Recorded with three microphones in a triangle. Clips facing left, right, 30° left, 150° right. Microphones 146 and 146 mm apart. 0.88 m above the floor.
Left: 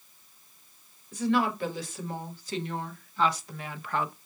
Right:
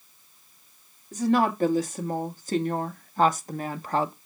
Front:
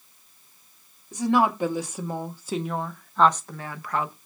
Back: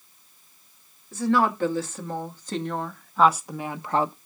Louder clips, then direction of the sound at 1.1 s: Right 4 dB, front 1 dB; 45° right.